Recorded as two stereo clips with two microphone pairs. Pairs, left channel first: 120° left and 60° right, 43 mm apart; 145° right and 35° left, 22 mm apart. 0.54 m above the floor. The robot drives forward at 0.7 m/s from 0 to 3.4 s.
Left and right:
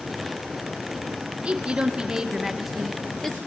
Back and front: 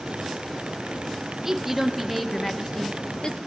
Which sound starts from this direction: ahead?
A woman speaking, at 1.4 s.